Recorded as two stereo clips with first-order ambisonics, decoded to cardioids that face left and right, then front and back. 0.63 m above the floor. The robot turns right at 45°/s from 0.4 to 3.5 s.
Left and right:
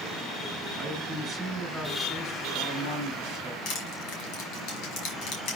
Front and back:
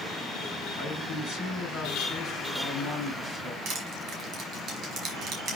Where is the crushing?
125° left, 5 m.